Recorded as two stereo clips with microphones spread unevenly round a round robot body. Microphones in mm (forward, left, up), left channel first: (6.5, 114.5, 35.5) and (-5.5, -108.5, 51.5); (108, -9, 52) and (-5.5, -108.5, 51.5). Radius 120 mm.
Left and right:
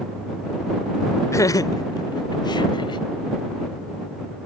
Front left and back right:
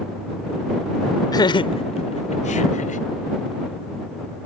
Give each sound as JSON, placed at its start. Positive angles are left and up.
{"t": 1.3, "sound": "laughter", "azimuth_deg": 40}